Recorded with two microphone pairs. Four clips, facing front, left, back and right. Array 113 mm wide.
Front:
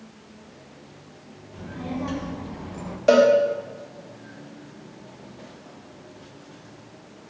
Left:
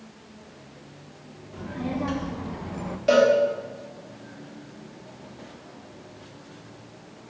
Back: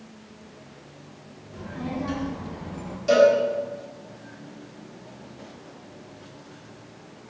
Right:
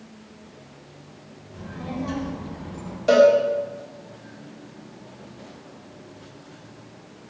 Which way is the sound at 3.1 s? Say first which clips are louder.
Right 4 dB, front 1 dB; 15° right.